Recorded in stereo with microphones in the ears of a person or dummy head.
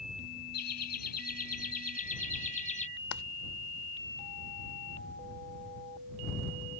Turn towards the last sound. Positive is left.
turn(degrees=75)  # may be behind; listen again after turning